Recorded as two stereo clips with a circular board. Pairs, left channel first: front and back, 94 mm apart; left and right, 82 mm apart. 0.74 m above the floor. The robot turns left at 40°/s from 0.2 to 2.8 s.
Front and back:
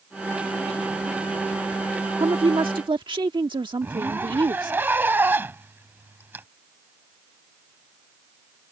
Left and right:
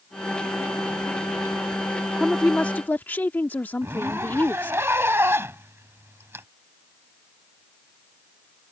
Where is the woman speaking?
Straight behind; by 4.8 s 155° left.